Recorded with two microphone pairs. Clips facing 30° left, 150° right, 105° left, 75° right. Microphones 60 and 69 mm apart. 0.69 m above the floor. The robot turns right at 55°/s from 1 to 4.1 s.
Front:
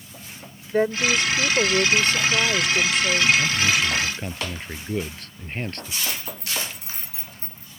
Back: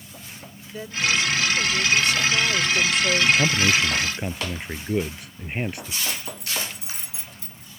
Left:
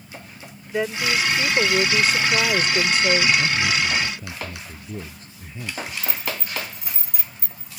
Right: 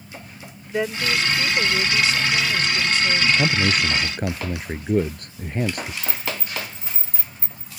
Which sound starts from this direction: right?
A man speaking, at 3.4 s.